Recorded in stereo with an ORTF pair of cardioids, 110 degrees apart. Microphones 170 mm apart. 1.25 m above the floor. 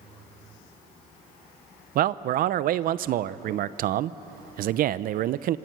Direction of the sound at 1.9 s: 60° right.